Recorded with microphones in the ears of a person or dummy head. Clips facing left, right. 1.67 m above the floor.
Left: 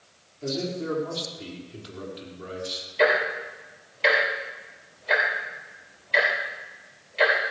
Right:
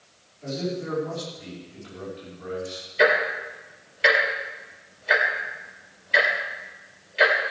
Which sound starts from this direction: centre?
Ticking, at 3.0 s.